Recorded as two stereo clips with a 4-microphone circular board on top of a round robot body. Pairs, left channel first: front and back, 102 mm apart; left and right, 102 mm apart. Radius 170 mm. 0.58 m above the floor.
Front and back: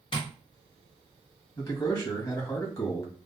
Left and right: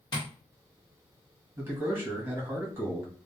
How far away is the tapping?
About 0.8 m.